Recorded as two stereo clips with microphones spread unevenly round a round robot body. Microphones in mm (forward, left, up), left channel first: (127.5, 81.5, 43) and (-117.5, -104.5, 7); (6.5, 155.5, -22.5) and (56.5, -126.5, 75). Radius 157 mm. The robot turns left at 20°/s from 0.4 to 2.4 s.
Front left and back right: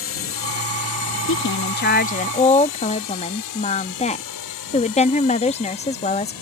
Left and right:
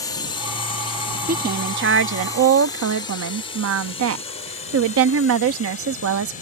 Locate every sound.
0.0 s a drone: 60° left; by 6.4 s 50° left
1.3 s a woman speaking: 10° right; by 6.3 s 35° right